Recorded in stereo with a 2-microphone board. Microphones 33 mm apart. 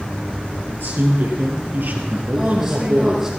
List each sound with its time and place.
0.7 s a man speaking: 70° right (ahead or behind), 4 m; by 3.3 s 55° right (ahead or behind), 4.5 m
2.4 s a woman speaking: 10° right (ahead or behind), 7 m